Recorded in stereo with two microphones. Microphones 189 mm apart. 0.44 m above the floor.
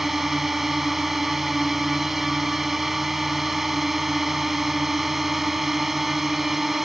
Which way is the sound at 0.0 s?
Centre (ahead or behind).